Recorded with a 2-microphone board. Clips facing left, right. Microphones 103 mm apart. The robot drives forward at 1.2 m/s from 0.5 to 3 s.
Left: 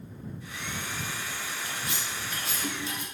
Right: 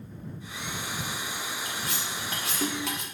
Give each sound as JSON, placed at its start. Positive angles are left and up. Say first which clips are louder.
{"t": 1.6, "sound": "cutlery clinking", "louder": "right 1 dB", "side_deg": -45, "distance_m": 1.9}